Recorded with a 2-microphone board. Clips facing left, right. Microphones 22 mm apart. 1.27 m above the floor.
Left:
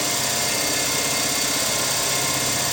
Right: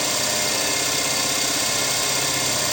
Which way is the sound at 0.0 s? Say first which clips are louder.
Right 1 dB; 30° right (ahead or behind).